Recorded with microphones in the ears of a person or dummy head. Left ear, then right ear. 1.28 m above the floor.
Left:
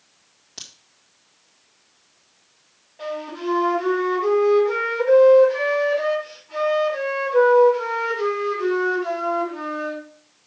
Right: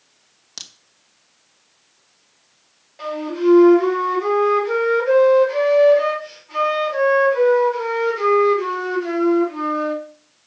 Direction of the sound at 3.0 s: 85° right.